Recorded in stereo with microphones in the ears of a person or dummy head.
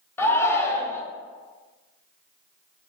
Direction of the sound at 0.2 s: 15° left (ahead or behind).